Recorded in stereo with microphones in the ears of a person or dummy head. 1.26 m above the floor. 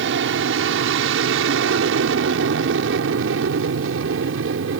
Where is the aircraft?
70° right (ahead or behind).